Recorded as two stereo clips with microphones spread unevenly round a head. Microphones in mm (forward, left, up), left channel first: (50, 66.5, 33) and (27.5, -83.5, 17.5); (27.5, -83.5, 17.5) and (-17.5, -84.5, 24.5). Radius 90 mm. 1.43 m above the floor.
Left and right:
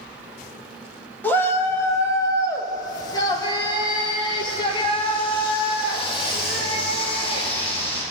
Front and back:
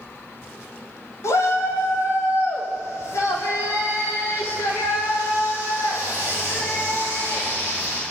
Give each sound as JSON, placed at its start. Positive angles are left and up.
{"t": 1.2, "sound": "a shout", "azimuth_deg": 5, "distance_m": 2.5}